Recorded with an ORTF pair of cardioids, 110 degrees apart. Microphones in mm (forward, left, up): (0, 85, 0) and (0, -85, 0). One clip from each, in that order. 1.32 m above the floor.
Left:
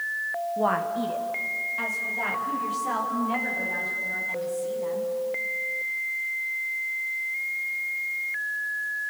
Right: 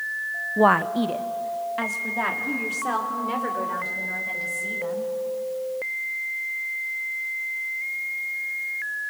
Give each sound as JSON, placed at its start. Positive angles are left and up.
{"t": 0.6, "sound": "a woman speaking", "azimuth_deg": -40, "distance_m": 0.6}